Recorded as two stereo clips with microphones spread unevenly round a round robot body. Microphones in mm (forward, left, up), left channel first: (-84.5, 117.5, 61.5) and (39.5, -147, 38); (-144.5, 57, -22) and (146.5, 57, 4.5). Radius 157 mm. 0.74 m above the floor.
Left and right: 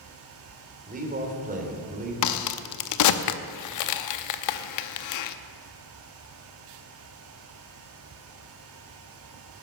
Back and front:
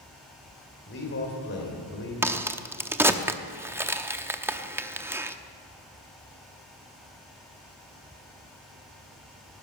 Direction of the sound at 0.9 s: 125° right.